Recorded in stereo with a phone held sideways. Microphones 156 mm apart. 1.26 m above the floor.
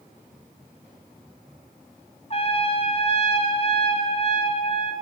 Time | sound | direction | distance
2.3 | a trumpet | 40° left (ahead or behind) | 1.7 m